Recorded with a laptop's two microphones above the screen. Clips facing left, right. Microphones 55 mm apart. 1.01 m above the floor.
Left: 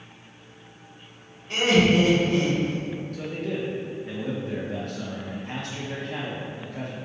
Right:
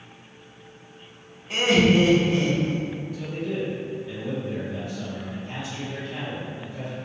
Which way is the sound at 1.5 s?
5° right (ahead or behind).